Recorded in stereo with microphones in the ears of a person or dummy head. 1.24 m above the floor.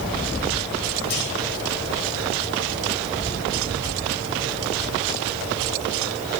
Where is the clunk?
60° left (ahead or behind), 9 m.